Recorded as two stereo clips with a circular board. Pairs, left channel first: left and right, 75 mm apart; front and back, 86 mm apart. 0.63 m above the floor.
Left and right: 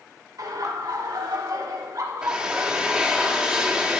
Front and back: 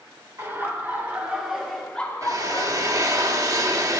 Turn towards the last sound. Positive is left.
turn(degrees=-165)